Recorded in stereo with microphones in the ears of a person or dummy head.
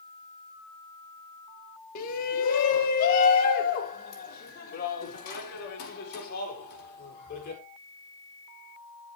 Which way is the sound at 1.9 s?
45° left (ahead or behind).